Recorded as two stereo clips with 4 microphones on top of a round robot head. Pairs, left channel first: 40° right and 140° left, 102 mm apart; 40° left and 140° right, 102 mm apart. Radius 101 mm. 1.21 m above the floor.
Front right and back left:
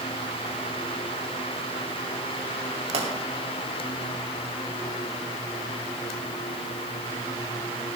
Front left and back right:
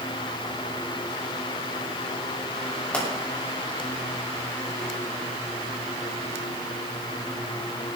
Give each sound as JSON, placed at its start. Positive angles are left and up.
{"t": 2.9, "sound": "a pop", "azimuth_deg": 120, "distance_m": 3.5}